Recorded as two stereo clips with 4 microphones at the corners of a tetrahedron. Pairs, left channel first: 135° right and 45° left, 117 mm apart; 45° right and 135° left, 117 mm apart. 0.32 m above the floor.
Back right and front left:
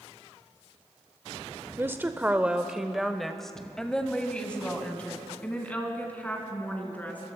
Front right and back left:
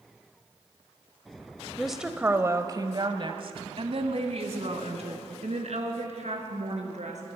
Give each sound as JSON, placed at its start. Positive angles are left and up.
{"t": 1.8, "sound": "a woman speaking", "azimuth_deg": 35, "distance_m": 0.9}